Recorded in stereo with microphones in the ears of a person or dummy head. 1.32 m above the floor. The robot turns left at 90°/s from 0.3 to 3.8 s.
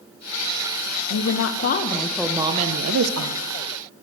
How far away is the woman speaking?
About 0.5 m.